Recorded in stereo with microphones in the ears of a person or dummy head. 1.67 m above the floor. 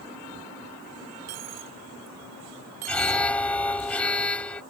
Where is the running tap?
No running tap in this recording.